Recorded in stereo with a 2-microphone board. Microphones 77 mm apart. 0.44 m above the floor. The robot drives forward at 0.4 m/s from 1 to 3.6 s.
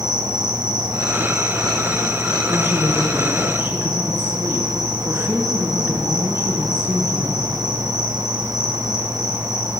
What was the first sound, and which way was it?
An insect, 65° right (ahead or behind).